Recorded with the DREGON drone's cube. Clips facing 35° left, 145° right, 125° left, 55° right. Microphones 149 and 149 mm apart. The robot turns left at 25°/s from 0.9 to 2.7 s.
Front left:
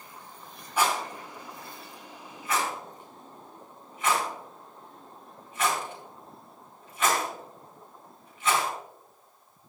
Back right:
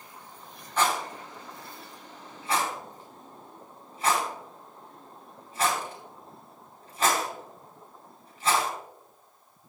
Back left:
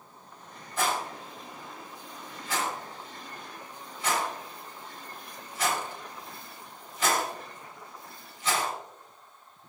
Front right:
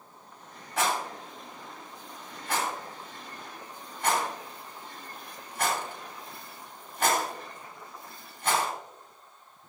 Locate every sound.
0.8 s a rattle: 45° right, 5 m; by 8.7 s 90° right, 5 m